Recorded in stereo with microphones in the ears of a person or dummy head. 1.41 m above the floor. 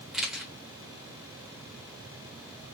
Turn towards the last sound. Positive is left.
turn(degrees=-5)  # may be behind; listen again after turning